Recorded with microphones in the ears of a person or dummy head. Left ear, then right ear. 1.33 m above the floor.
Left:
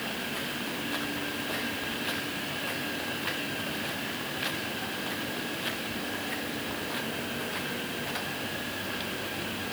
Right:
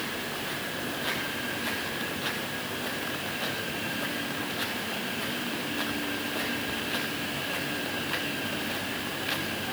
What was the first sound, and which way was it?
Only background noise.